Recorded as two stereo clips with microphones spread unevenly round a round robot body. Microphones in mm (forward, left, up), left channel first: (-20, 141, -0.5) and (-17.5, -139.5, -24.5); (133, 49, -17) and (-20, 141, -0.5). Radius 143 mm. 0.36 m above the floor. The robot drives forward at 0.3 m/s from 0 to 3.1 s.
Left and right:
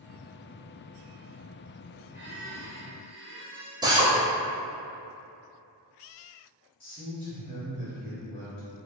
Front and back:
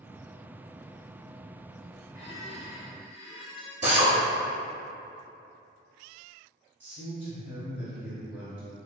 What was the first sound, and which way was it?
A squeak, 170° right.